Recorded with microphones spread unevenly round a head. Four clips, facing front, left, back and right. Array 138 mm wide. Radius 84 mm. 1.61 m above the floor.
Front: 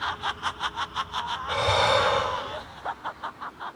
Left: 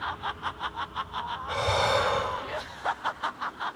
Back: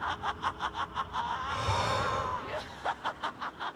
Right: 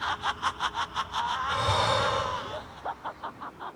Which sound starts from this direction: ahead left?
Breathing, at 1.5 s.